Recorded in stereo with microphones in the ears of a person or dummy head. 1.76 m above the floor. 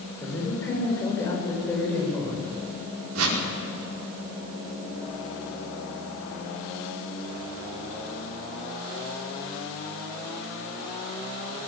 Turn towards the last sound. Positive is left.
turn(degrees=-85)